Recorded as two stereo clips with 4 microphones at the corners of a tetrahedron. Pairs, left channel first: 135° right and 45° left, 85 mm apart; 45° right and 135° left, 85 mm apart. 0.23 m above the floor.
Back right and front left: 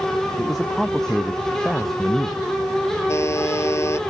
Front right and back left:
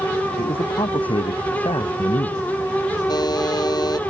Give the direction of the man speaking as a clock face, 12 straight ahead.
2 o'clock.